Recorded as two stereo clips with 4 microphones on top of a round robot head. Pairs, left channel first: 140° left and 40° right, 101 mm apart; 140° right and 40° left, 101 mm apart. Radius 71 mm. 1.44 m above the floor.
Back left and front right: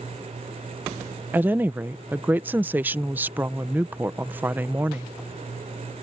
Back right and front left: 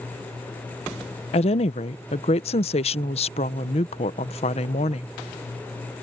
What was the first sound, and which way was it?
A woman speaking, 115° right.